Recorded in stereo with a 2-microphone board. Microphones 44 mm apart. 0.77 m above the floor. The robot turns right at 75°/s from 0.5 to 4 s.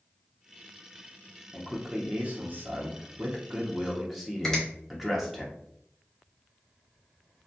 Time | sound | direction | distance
1.5 | a man speaking | 170° left | 0.6 m
4.4 | a finger snap | 10° left (ahead or behind) | 1.1 m